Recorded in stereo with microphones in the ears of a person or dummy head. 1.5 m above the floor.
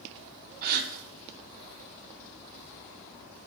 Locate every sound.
0.6 s a gasp: 45° right (ahead or behind), 0.6 m